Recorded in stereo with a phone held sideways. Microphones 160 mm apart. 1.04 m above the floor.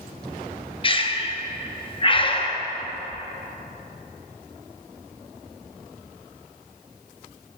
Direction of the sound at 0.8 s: 35° left (ahead or behind).